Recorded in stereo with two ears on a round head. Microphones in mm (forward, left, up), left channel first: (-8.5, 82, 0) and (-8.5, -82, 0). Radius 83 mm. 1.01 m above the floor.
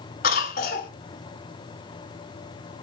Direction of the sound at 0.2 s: 50° left (ahead or behind).